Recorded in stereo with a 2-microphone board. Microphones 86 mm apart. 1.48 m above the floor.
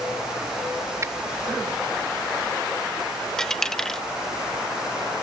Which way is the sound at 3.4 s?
5° left (ahead or behind).